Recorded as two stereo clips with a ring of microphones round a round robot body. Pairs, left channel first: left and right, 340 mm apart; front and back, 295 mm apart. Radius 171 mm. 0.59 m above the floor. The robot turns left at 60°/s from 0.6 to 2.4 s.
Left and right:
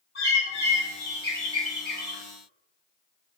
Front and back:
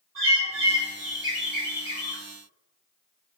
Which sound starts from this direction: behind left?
A bird, at 0.1 s.